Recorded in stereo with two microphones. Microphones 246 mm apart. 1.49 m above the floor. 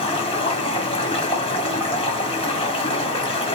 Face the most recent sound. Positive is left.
turn(degrees=20)  # may be behind; listen again after turning